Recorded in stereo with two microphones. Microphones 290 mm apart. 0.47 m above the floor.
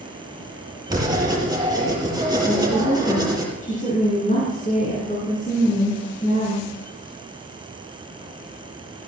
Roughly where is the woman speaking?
Left.